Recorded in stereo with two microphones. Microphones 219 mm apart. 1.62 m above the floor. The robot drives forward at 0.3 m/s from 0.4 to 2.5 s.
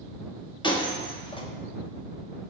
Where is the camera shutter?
I don't hear a camera shutter.